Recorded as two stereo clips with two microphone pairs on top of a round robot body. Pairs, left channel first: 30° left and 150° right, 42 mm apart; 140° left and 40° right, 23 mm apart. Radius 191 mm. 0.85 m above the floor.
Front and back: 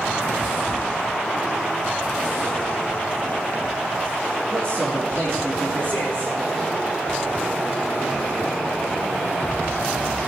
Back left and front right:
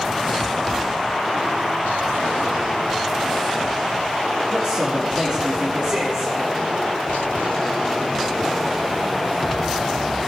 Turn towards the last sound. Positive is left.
turn(degrees=-20)